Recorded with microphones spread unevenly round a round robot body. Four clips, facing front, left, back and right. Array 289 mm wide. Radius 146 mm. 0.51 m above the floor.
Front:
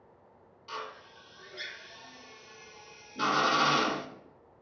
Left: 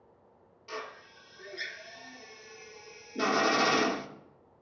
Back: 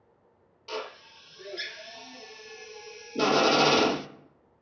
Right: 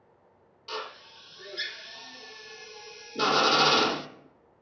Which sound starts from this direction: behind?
A drill, at 0.7 s.